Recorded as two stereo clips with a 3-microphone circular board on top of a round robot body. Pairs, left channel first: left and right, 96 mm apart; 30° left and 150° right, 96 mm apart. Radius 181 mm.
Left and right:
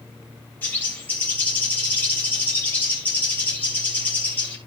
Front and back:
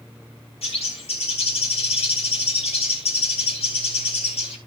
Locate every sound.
0.6 s a bird: 20° left, 4.5 m